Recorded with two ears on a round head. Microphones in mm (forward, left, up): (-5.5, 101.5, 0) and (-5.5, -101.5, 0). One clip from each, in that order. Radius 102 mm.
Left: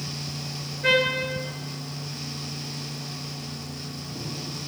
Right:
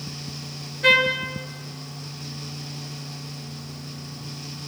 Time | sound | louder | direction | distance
0.8 | a trumpet | right 4 dB | 50° right (ahead or behind) | 0.8 m